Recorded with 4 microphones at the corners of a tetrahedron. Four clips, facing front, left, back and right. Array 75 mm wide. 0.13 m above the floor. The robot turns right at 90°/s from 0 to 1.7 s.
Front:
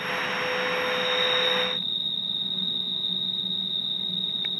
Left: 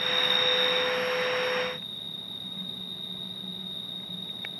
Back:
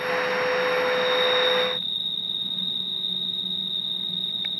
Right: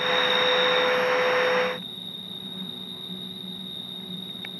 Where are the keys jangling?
I don't hear keys jangling.